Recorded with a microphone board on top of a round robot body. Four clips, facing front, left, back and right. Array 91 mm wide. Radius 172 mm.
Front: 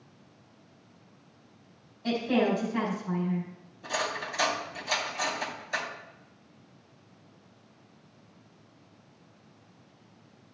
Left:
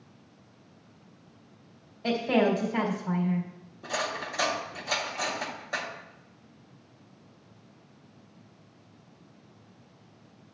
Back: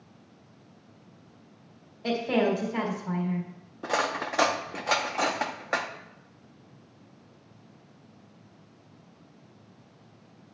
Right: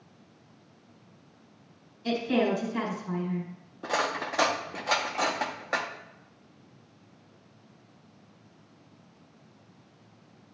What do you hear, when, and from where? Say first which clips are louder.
2.0 s a woman speaking: left 2 dB, back 1 dB; 125° left, 3.5 m
3.8 s cutlery clinking: right 3 dB, back 4 dB; 150° right, 0.8 m